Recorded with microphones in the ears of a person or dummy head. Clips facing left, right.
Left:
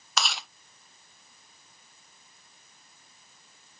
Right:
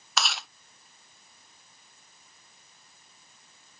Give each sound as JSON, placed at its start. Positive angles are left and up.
{"t": 0.2, "sound": "chewing", "side_deg": 5}